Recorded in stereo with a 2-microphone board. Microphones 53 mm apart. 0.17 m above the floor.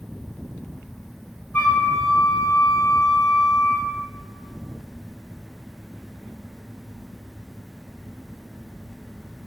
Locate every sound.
1.5 s a flute: 35° left (ahead or behind), 1.8 m